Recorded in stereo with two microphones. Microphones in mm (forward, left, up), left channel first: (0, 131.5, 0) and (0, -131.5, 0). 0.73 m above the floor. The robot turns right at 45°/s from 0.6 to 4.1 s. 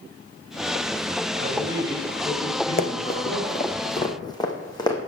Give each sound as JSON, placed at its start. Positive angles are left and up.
{"t": 1.4, "sound": "a man speaking", "azimuth_deg": -35, "distance_m": 3.5}
{"t": 2.8, "sound": "running footsteps", "side_deg": 35, "distance_m": 0.8}